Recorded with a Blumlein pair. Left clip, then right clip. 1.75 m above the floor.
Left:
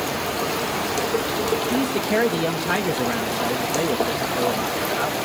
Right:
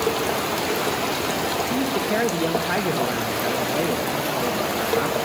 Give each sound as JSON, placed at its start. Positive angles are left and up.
{"t": 1.7, "sound": "a man speaking", "azimuth_deg": 5, "distance_m": 1.4}